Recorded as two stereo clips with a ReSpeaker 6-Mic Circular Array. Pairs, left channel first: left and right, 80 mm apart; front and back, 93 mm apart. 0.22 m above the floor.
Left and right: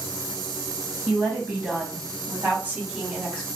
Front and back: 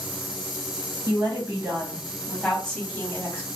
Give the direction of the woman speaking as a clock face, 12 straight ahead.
5 o'clock.